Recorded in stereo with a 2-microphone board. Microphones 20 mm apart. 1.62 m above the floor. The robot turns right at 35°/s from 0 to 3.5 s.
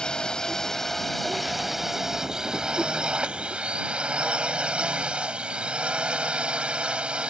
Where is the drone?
135° left; by 7.3 s 105° right.